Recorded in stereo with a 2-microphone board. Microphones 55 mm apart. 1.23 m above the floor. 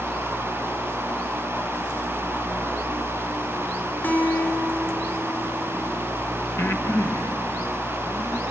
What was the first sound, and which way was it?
A guitar, 45° left (ahead or behind).